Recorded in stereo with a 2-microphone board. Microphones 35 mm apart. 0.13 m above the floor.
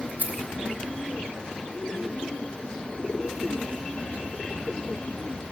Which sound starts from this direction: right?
Keys jangling, at 0.2 s.